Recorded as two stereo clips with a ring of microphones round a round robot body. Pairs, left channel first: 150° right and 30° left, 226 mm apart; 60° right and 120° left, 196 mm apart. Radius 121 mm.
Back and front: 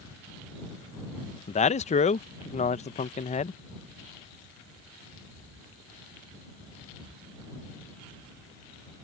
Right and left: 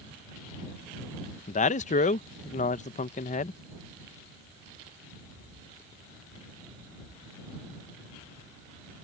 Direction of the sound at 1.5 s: 100° right.